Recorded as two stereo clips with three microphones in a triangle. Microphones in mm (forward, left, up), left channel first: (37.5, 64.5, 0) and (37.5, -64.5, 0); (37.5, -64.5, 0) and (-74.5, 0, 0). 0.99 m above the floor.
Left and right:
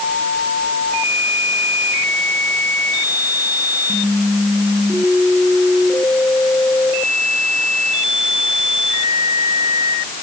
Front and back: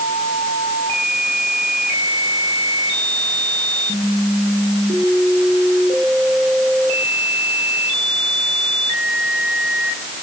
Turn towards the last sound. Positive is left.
No sound to turn to.